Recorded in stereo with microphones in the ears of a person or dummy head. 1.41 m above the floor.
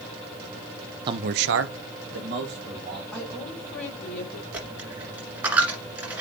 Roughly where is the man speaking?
Right.